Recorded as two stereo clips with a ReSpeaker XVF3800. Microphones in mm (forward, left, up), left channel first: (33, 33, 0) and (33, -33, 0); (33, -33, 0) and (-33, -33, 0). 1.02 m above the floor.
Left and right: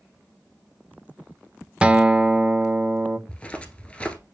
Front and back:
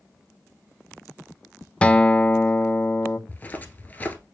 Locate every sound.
1.8 s a guitar: 45° right, 0.5 m
3.3 s footsteps: 35° left, 1.1 m